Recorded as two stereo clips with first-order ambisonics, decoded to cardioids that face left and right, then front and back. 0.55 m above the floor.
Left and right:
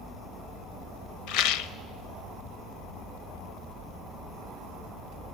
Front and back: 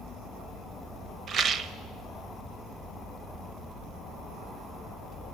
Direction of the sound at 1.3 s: 120° left.